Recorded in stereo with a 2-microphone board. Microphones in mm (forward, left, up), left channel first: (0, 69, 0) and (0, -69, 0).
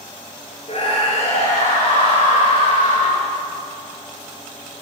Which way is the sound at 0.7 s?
50° left (ahead or behind).